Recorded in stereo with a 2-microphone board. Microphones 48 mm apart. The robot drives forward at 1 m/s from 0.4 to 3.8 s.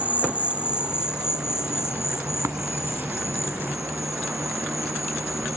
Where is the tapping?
75° right (ahead or behind); by 2.6 s 80° right.